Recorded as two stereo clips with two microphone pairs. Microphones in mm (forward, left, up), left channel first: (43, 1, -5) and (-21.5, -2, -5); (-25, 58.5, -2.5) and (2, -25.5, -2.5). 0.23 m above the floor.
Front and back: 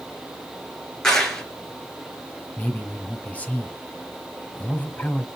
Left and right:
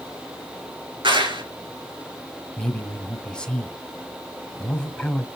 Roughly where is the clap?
Right.